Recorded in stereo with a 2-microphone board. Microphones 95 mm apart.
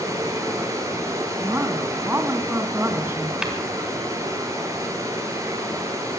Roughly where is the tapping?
Centre.